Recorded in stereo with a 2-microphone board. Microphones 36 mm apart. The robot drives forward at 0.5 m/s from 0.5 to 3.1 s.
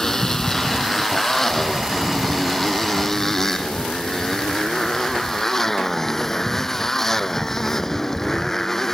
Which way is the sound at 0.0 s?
10° left (ahead or behind).